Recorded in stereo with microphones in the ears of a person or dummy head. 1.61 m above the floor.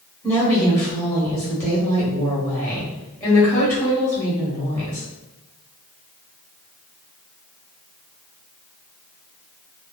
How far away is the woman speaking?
About 1.1 m.